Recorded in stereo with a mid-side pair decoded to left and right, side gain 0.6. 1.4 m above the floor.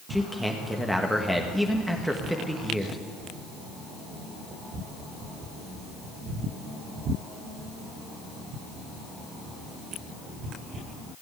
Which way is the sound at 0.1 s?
Straight ahead.